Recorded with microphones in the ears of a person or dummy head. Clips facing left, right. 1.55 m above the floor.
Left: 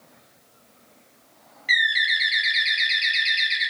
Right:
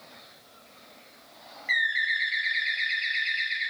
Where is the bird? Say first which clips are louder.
Left 5 dB; 60° left (ahead or behind), 1.0 m.